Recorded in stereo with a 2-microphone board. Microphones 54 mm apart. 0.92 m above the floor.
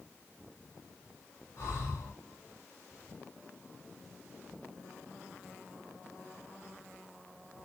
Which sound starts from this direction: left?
Breathing, at 1.6 s.